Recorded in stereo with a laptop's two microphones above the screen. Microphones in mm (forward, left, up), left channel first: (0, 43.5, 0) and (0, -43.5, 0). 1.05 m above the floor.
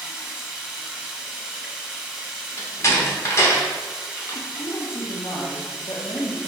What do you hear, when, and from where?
0.0 s running water: 5° right (ahead or behind), 0.8 m
2.6 s a door slam: 35° left (ahead or behind), 0.9 m
4.3 s a woman speaking: 60° left (ahead or behind), 0.8 m